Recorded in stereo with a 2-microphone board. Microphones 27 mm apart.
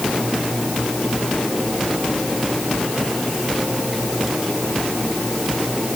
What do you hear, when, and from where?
Only background noise.